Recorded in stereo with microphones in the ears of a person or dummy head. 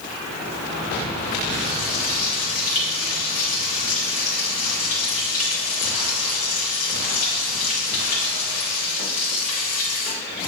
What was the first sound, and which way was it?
Frying, 50° left (ahead or behind).